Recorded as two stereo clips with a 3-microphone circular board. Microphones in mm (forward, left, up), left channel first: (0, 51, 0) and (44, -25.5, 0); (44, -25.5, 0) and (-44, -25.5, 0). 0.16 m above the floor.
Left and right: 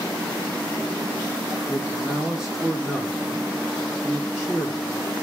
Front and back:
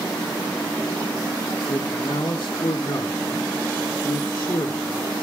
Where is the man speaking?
20° left, 5.5 m.